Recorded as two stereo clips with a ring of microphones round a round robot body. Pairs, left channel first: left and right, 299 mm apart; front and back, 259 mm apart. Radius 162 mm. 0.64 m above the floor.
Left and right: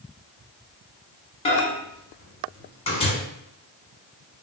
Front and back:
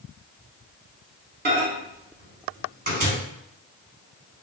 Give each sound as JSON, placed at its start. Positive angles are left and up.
{"t": 1.4, "sound": "a microwave", "azimuth_deg": 150, "distance_m": 1.0}